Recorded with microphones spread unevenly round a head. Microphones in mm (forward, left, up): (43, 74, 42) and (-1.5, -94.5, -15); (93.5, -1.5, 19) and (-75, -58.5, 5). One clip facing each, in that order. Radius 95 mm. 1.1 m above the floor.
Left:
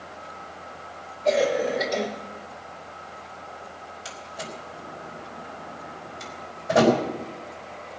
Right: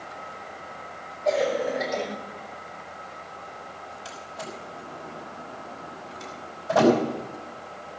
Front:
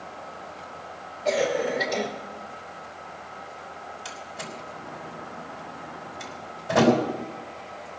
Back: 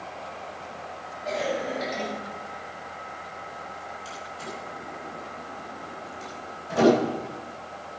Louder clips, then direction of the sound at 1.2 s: Left 2 dB, front 5 dB; 20° left.